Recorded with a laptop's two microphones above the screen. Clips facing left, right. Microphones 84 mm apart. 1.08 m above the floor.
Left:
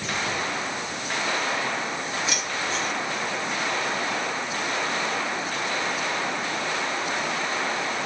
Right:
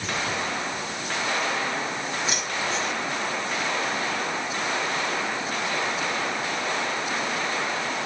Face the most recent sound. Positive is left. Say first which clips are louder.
# even
turn(degrees=-25)  # may be behind; listen again after turning